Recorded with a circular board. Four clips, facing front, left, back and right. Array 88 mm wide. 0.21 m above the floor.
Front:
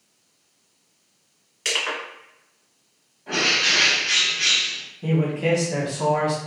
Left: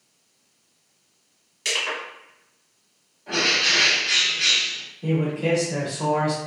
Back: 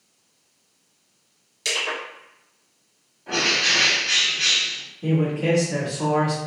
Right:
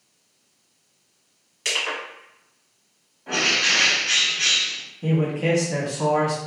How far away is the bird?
About 1.2 m.